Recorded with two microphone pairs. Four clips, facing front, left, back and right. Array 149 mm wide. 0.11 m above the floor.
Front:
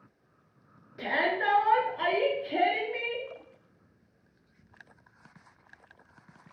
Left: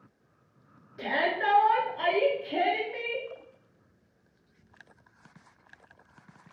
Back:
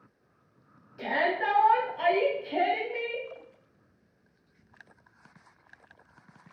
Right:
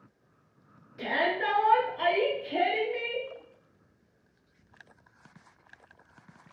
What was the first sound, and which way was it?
A shout, 25° left.